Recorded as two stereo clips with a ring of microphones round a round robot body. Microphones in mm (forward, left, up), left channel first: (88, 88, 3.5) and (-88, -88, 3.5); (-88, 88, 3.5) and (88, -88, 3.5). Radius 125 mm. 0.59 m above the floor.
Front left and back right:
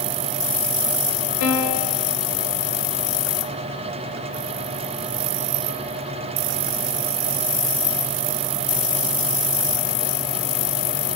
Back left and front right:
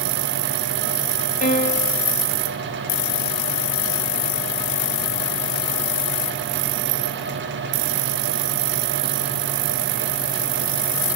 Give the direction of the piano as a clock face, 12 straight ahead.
9 o'clock.